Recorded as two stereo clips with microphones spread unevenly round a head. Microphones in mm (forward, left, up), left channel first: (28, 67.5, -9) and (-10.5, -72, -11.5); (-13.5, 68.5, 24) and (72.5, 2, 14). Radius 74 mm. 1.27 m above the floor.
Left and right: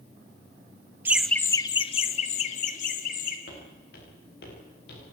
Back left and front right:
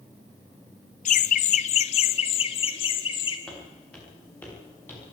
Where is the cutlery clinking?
No cutlery clinking in this recording.